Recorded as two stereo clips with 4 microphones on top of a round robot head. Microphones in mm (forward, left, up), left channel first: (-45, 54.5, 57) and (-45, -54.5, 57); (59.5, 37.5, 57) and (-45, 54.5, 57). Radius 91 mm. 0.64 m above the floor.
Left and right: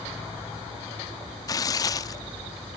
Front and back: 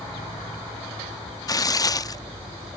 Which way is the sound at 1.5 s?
40° left.